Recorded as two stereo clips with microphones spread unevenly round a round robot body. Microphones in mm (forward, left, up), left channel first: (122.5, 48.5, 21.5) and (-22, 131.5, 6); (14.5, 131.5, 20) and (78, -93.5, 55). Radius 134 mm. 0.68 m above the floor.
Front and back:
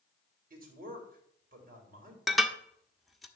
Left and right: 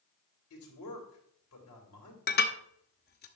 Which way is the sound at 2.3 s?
60° left.